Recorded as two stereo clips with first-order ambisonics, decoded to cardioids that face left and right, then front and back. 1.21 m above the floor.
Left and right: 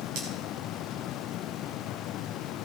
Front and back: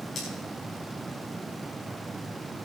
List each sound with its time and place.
0.1 s cutlery clinking: 65° right, 5.5 m